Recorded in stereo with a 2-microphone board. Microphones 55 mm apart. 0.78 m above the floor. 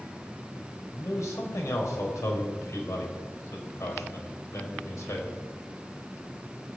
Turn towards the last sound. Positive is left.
turn(degrees=70)  # may be behind; listen again after turning